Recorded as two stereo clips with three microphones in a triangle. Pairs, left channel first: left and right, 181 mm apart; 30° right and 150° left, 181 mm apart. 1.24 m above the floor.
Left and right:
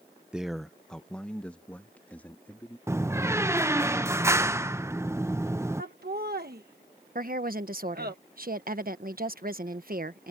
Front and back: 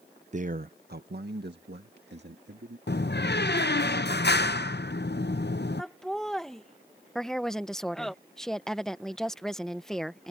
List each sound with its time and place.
0.3 s a man speaking: 175° right; by 2.8 s 170° left
2.9 s a door slam: 15° right
5.8 s laughter: 120° right
7.2 s a woman speaking: 115° right